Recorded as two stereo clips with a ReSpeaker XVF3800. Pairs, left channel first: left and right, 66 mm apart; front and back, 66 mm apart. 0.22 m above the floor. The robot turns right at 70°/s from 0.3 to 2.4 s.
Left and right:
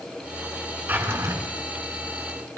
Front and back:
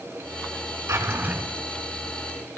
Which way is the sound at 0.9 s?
145° right.